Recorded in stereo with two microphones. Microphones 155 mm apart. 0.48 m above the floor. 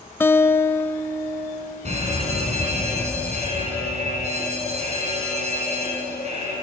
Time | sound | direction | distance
0.2 | a guitar | 15° left (ahead or behind) | 0.8 m
1.9 | a fire alarm | 45° right (ahead or behind) | 7 m